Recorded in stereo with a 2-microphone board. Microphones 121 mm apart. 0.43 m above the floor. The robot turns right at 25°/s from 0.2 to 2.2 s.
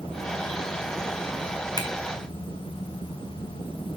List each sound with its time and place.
1.8 s a finger snap: 35° left (ahead or behind), 1.5 m